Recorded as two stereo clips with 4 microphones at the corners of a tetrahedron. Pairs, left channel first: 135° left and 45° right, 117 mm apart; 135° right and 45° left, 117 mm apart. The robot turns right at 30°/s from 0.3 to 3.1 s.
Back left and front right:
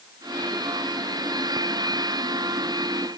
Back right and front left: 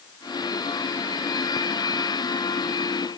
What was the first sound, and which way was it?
Only background noise.